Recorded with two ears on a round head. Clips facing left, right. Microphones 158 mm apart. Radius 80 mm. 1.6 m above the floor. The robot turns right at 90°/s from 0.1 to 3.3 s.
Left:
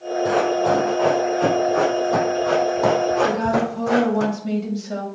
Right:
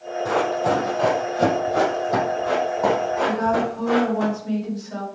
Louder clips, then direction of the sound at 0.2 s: Left 2 dB; 15° left (ahead or behind).